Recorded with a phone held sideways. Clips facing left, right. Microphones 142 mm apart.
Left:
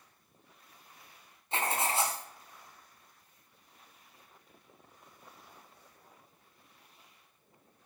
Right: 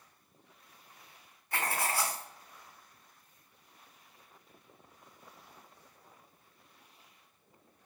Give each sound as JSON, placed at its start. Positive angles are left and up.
{"t": 1.5, "sound": "writing", "side_deg": 20, "distance_m": 2.0}